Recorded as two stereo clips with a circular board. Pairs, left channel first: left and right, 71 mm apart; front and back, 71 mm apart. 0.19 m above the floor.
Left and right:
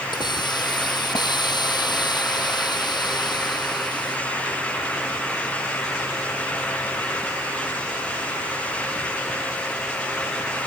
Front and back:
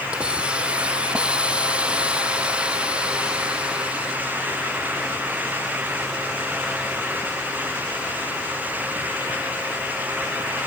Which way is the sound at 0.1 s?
105° left.